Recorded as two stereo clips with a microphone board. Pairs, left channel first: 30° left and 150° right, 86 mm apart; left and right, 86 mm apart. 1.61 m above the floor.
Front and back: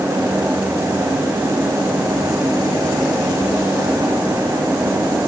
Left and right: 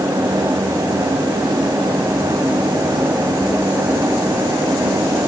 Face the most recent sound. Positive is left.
No sound to turn to.